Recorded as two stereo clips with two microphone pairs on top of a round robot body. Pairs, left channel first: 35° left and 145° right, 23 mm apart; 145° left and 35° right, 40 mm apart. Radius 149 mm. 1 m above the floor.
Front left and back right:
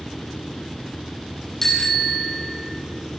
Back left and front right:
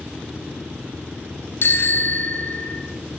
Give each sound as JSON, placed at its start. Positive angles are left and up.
{"t": 1.6, "sound": "a bicycle bell", "azimuth_deg": 110, "distance_m": 5.5}